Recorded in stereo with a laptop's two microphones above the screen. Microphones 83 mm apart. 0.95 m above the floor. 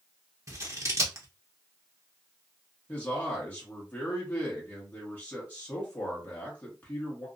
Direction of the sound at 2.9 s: 25° left (ahead or behind).